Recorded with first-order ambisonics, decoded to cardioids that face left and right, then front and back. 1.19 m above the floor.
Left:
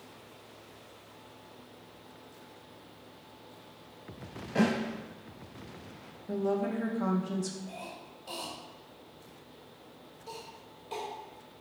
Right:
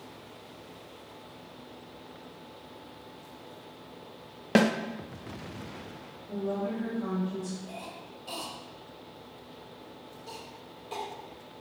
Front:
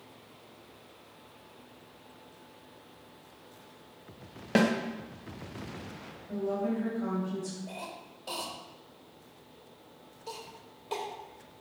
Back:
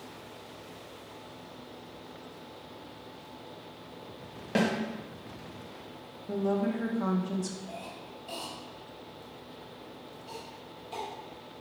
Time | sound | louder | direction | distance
4.5 | a snare drum | right 5 dB, front 2 dB | 75° right | 0.8 m
6.3 | a woman speaking | left 2 dB, back 2 dB | 135° left | 1.4 m
7.7 | a cough | right 2 dB, even | straight ahead | 1.7 m